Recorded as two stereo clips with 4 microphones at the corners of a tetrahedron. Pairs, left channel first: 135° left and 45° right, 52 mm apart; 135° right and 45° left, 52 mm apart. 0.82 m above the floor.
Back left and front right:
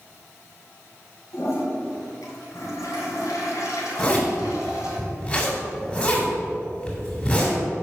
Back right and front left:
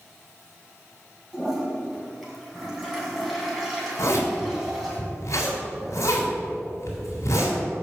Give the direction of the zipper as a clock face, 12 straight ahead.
5 o'clock.